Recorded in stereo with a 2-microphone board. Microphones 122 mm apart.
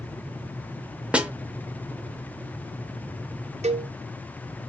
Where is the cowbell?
65° right (ahead or behind), 0.8 m.